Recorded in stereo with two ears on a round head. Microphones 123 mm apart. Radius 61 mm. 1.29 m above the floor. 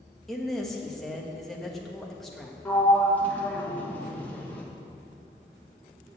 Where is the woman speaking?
Centre (ahead or behind), 1.6 m.